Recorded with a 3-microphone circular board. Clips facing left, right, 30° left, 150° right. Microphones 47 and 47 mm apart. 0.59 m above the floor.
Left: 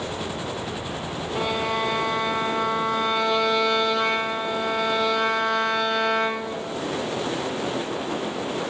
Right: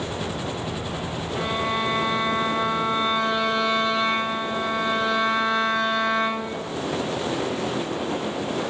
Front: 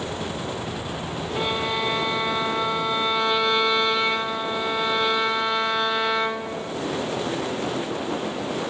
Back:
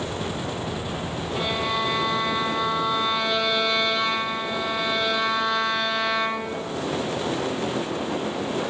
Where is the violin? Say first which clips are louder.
Even, even; 105° left, 4.5 m.